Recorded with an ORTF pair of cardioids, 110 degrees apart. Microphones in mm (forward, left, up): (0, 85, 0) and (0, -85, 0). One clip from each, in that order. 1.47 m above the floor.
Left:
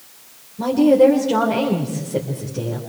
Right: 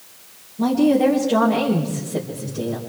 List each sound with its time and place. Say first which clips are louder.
0.6 s a woman speaking: left 4 dB; 40° left, 5.5 m